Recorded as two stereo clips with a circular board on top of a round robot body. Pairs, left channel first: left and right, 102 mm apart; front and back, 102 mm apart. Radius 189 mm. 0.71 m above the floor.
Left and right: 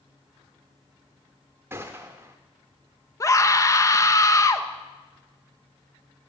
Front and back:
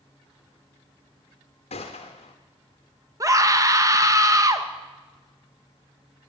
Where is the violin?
No violin in this recording.